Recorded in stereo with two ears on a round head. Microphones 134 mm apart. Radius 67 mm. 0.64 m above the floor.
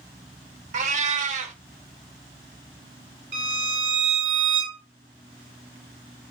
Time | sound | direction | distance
0.7 | a cat meowing | 50° right (ahead or behind) | 0.7 m
3.3 | a violin | 85° right | 3 m